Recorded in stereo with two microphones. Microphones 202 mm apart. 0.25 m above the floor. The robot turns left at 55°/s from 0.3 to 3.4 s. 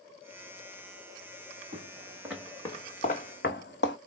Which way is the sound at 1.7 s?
40° right (ahead or behind).